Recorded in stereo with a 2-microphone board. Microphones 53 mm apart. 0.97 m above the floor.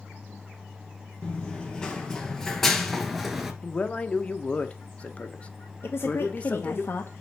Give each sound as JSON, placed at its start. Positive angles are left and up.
{"t": 1.2, "sound": "running footsteps", "side_deg": 15, "distance_m": 1.4}
{"t": 3.6, "sound": "a man speaking", "side_deg": 25, "distance_m": 0.7}
{"t": 5.8, "sound": "a woman speaking", "side_deg": 45, "distance_m": 0.8}